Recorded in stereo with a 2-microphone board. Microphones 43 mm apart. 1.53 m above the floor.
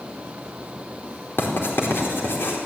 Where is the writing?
60° left (ahead or behind), 4 m.